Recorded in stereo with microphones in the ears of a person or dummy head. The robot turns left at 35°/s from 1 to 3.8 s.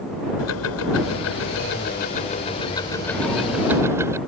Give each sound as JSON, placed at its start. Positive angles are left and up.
{"t": 0.4, "sound": "ticking", "azimuth_deg": 85}